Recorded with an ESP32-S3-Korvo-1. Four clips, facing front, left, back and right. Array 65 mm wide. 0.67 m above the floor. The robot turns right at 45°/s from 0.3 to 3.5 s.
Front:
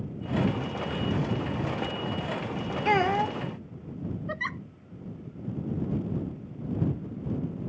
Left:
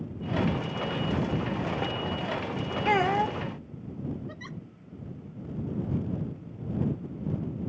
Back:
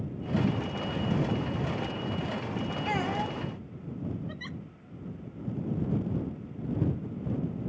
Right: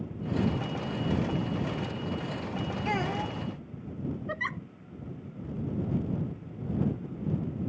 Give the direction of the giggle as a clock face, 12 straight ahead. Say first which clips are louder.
Right 8 dB, front 8 dB; 1 o'clock.